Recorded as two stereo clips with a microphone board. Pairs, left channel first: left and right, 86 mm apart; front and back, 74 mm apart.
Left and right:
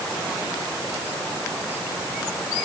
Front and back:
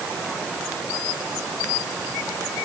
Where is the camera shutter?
No camera shutter in this recording.